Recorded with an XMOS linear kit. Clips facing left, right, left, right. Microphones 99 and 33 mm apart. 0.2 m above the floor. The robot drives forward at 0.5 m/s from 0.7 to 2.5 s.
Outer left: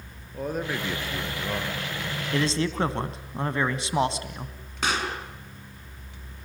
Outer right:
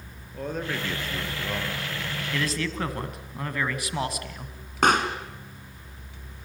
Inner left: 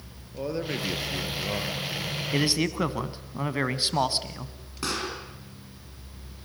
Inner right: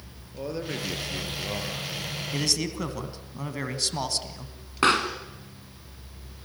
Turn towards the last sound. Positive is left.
turn(degrees=-50)  # may be behind; listen again after turning